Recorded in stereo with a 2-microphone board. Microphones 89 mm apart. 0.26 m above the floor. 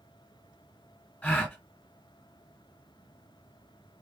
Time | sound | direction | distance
1.2 | a gasp | 15° left (ahead or behind) | 0.8 m